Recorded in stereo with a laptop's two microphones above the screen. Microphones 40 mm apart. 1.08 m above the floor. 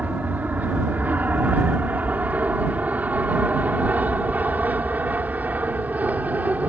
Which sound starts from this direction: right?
An aircraft, at 0.0 s.